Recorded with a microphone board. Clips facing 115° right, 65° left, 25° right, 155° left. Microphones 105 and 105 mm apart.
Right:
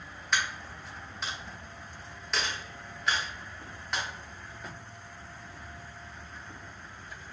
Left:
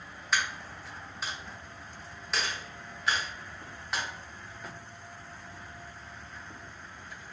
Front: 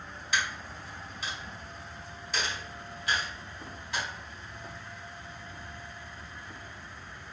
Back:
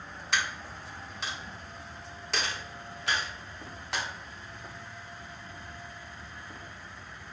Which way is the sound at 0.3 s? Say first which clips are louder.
Even, even; 155° left.